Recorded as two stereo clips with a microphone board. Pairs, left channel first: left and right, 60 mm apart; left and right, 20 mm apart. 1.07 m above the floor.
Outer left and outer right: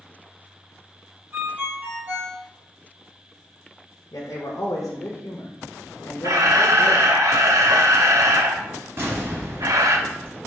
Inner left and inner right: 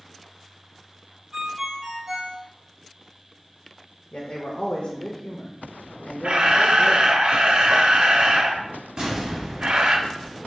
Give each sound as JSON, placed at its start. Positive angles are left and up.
{"t": 1.3, "sound": "a ringtone", "side_deg": -35, "distance_m": 1.4}
{"t": 4.1, "sound": "a man speaking", "side_deg": 70, "distance_m": 0.9}
{"t": 6.2, "sound": "a camera shutter", "side_deg": -65, "distance_m": 0.7}
{"t": 9.0, "sound": "an explosion", "side_deg": -45, "distance_m": 2.5}